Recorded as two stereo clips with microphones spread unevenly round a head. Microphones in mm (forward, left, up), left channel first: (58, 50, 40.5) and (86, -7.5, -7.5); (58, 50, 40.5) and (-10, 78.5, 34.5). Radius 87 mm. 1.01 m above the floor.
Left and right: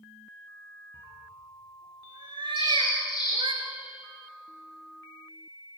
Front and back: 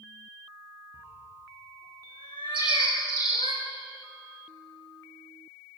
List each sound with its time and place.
0.9 s a cat meowing: 85° right, 4 m; by 3.5 s 70° right, 3 m
2.5 s a bird: 160° left, 9 m